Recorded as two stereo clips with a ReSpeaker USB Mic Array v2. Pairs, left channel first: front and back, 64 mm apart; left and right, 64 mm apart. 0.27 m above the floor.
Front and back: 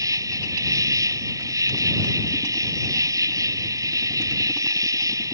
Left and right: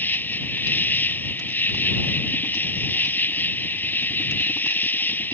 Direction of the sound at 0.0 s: 155° left.